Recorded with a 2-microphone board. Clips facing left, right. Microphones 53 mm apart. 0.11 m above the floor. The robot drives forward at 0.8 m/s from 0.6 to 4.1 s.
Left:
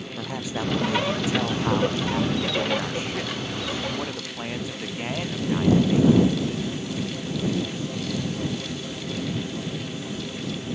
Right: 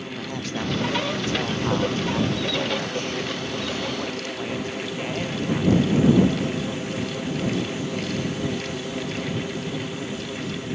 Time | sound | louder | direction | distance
0.2 | a man speaking | left 1 dB | 10° left (ahead or behind) | ?